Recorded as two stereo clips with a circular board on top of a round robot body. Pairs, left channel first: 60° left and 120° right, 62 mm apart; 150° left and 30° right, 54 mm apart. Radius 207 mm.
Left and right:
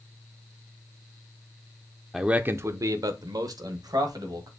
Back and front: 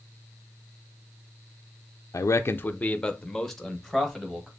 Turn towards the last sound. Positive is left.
turn(degrees=-115)